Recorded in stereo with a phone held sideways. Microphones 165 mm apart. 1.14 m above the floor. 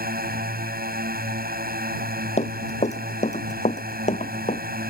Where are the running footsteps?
45° left (ahead or behind).